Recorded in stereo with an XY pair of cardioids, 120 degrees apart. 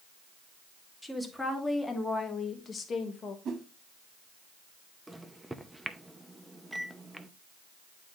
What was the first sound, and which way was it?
A woman speaking, 5° left.